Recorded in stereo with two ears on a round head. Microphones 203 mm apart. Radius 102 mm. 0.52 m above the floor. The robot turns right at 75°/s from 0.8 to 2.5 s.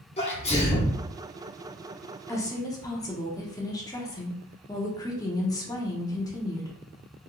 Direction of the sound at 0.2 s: 30° left (ahead or behind).